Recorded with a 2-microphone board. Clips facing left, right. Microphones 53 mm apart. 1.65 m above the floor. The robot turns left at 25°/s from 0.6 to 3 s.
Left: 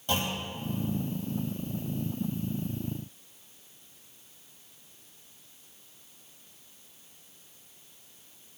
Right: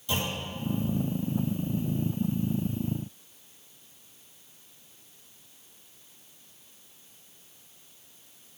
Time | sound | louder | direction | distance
0.1 | a clunk | left 1 dB | 55° left (ahead or behind) | 2.5 m